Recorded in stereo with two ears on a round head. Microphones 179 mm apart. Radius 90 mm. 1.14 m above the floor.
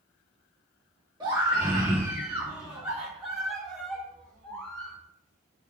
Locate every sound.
1.2 s a scream: 20° right (ahead or behind), 3 m; by 5.0 s 5° left (ahead or behind), 5 m